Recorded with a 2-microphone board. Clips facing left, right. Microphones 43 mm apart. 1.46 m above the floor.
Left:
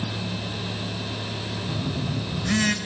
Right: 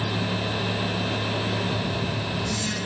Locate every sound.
1.7 s a phone buzzing: 65° left (ahead or behind), 2.5 m